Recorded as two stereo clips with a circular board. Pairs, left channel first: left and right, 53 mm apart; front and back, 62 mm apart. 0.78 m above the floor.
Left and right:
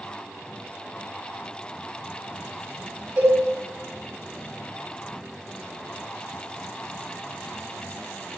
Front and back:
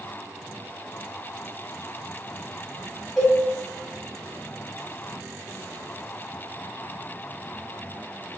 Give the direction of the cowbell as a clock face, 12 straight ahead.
3 o'clock.